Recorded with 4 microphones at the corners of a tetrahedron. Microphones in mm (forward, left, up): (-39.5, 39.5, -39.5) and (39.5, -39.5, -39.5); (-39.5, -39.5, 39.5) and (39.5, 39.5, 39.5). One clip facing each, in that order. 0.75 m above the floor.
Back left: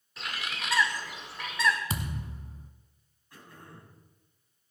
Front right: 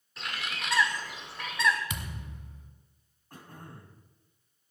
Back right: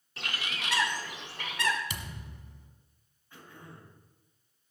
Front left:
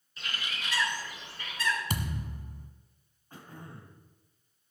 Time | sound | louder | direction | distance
0.2 | a bird | even, back right 2 dB | 135° right | 1.9 m
1.9 | a thud | back left 4 dB, front left 7 dB | 85° left | 1.4 m
3.3 | throat clearing | front right 3 dB, front left 3 dB | 5° right | 3 m